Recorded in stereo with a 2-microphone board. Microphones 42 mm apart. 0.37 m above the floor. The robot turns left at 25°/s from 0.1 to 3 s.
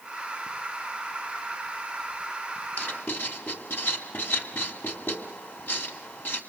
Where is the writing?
65° left (ahead or behind), 2 m; by 6.4 s 60° left (ahead or behind), 2 m.